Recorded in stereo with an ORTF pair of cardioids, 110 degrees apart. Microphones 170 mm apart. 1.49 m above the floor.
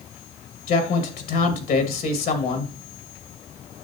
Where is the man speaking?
60° left, 2 m.